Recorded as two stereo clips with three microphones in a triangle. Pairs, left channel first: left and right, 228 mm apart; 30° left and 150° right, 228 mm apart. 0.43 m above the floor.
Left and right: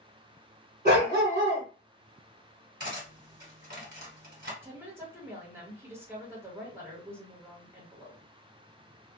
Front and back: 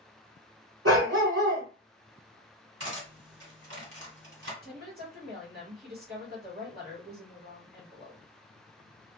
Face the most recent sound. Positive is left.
turn(degrees=-165)